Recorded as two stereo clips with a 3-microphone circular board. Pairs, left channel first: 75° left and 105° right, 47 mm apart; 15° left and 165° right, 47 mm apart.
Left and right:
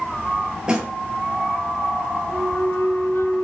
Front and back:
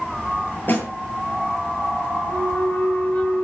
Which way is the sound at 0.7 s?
30° right.